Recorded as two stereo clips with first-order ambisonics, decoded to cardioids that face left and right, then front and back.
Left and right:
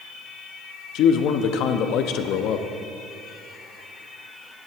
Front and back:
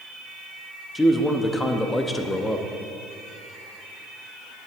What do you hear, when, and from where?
0.9 s a man speaking: 80° left, 0.7 m